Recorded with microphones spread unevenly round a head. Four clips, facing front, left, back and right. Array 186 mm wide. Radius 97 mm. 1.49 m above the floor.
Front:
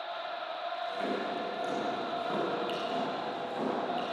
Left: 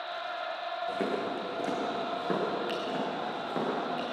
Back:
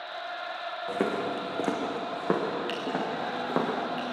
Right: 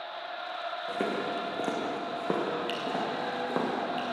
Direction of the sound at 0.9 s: 170° right.